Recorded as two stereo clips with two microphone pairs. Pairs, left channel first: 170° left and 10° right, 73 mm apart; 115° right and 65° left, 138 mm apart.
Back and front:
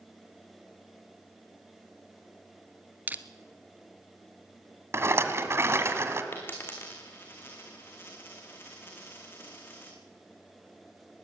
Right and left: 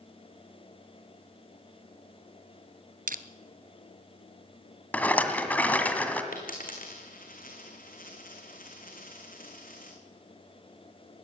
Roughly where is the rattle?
Ahead right.